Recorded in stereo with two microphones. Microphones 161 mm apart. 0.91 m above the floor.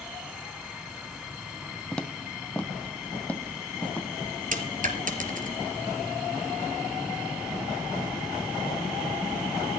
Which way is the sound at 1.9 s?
5° left (ahead or behind).